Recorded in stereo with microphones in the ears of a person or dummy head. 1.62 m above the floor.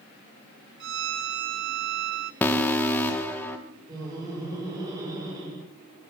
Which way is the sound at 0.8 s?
65° right (ahead or behind).